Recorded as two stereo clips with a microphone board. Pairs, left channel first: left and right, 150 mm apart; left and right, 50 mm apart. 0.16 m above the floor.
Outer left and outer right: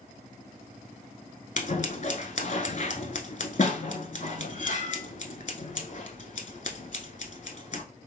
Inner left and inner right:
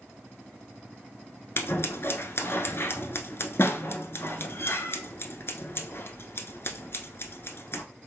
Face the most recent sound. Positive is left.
turn(degrees=55)  # may be behind; listen again after turning